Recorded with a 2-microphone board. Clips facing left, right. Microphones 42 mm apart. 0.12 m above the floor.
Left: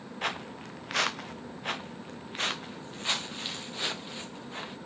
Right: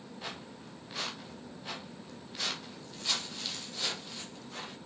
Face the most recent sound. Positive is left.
turn(degrees=30)  # may be behind; listen again after turning